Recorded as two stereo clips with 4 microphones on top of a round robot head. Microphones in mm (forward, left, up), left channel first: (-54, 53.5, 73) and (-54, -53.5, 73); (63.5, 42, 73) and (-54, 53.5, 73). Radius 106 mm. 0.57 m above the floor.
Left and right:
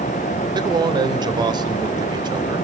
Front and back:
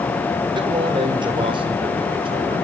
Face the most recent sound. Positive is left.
turn(degrees=-135)